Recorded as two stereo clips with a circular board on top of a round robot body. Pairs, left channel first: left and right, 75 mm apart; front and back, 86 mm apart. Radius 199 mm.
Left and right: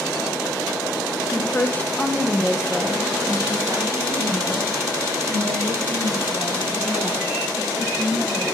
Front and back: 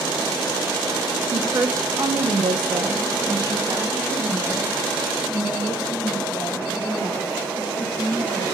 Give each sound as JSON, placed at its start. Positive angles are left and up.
{"t": 1.3, "sound": "a woman speaking", "azimuth_deg": 135, "distance_m": 1.2}